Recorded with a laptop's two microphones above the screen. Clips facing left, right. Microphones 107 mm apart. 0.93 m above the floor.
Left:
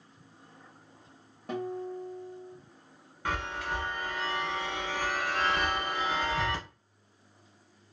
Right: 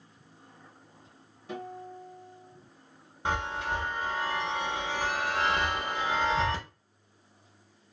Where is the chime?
20° right (ahead or behind), 0.8 m.